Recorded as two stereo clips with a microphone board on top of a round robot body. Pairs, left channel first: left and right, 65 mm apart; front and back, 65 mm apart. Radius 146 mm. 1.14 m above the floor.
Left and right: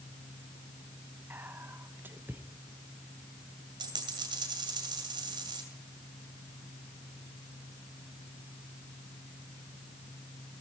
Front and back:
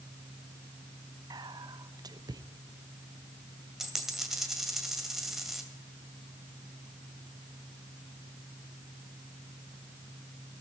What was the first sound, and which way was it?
Whispering, 150° right.